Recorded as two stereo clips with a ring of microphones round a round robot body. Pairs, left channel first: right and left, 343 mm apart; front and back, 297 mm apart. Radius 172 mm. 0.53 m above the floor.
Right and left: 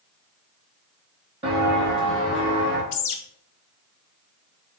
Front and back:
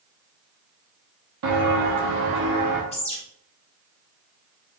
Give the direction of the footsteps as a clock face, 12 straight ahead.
7 o'clock.